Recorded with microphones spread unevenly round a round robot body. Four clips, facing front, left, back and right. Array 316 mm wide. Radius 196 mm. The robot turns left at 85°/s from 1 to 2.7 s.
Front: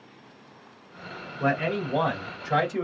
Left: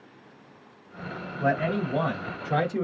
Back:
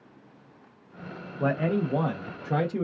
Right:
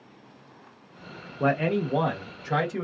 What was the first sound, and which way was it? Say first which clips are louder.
A man speaking: right 1 dB, even; 95° right.